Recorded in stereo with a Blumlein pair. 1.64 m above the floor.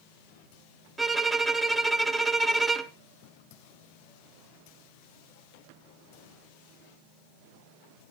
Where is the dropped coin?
I don't hear a dropped coin.